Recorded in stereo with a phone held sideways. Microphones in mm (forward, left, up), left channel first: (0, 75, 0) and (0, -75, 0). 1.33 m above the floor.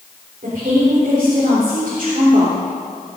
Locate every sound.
0.4 s a woman speaking: 60° right (ahead or behind), 3.5 m